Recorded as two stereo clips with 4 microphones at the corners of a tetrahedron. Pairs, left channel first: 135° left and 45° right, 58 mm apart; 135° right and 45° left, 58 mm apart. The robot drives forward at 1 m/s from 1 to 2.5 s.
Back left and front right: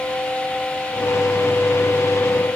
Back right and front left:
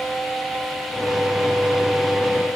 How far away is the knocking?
I don't hear knocking.